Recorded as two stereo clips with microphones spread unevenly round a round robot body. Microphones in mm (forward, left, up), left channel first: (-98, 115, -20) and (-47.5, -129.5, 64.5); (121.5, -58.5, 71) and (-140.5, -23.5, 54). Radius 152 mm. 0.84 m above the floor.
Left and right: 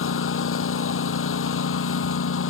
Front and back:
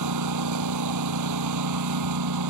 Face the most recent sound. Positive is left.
turn(degrees=140)